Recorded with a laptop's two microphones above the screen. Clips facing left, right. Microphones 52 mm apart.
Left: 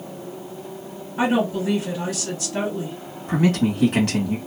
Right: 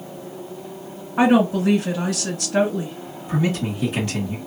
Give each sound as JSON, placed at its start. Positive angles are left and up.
{"t": 1.2, "sound": "a woman speaking", "side_deg": -65, "distance_m": 1.5}
{"t": 3.3, "sound": "a man speaking", "side_deg": 60, "distance_m": 1.6}